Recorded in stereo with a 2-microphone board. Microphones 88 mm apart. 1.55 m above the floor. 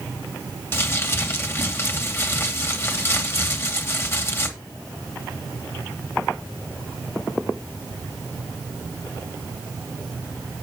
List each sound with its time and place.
0.7 s crumpling: 30° left (ahead or behind), 2.5 m